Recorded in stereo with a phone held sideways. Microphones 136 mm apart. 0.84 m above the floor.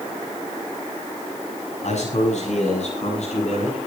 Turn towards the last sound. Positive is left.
turn(degrees=60)  # may be behind; listen again after turning